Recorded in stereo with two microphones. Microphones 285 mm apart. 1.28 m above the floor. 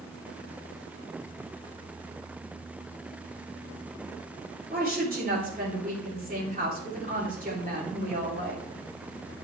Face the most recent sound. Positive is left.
turn(degrees=-30)  # may be behind; listen again after turning